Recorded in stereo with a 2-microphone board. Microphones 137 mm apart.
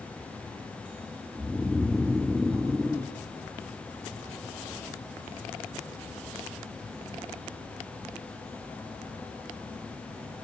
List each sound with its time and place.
1.4 s snoring: centre (ahead or behind), 1.6 m